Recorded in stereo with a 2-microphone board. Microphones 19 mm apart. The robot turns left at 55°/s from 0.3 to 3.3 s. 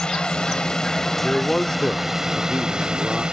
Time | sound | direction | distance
0.0 | a drone | 80° left | ?
1.2 | a man speaking | 130° left | ?